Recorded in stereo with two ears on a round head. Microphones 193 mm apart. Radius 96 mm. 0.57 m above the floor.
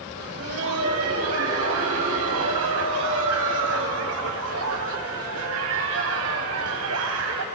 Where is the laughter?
75° right (ahead or behind), 4 m.